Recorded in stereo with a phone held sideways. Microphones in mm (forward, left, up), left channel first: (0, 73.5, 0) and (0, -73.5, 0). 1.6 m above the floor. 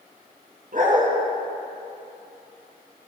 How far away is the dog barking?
About 5 m.